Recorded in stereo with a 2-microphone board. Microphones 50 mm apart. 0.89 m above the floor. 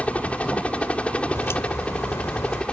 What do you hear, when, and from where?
0.0 s a helicopter: 25° left (ahead or behind); by 2.7 s 20° left (ahead or behind)
1.4 s a crack: 65° left (ahead or behind)